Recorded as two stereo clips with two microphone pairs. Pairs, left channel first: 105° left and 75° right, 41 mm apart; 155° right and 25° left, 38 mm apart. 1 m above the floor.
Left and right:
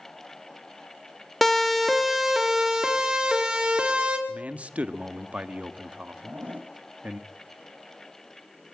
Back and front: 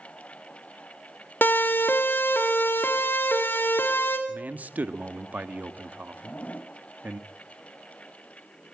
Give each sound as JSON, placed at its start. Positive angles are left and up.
{"t": 1.4, "sound": "a siren", "azimuth_deg": -170, "distance_m": 2.5}
{"t": 4.3, "sound": "a man speaking", "azimuth_deg": -20, "distance_m": 1.5}
{"t": 6.2, "sound": "a zipper", "azimuth_deg": -120, "distance_m": 2.0}